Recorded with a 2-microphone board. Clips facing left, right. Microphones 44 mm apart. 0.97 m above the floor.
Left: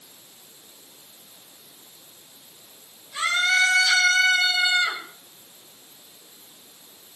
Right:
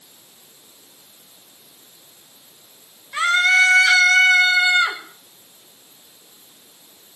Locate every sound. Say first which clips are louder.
3.1 s a scream: right 6 dB; 60° right (ahead or behind), 4 m